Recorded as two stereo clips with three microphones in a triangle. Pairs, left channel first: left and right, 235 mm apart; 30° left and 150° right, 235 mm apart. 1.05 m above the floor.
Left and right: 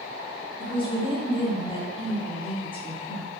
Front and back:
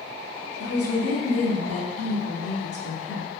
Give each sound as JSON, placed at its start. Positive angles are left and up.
{"t": 0.6, "sound": "a woman speaking", "azimuth_deg": 25, "distance_m": 0.6}